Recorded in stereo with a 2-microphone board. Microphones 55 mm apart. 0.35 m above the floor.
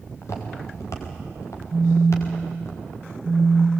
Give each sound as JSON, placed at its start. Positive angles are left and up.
{"t": 0.2, "sound": "footsteps", "side_deg": 60, "distance_m": 5.5}
{"t": 1.7, "sound": "a phone buzzing", "side_deg": -20, "distance_m": 2.5}